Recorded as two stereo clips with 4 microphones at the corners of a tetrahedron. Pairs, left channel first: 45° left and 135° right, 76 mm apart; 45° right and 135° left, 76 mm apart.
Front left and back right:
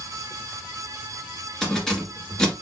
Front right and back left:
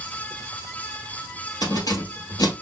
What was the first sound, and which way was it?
Keys jangling, 35° right.